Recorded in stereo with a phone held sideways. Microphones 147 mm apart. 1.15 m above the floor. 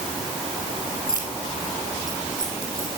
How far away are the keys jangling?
About 5 m.